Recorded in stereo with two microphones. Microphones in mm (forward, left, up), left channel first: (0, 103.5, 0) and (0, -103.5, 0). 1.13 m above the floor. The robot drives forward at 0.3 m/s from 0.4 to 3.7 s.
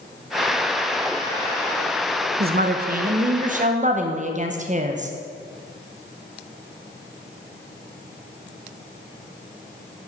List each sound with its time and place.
2.4 s a woman speaking: 50° right (ahead or behind), 0.7 m; by 5.1 s 35° right (ahead or behind), 0.8 m